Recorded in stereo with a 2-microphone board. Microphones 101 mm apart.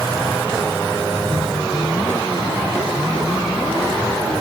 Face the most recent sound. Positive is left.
No sound to turn to.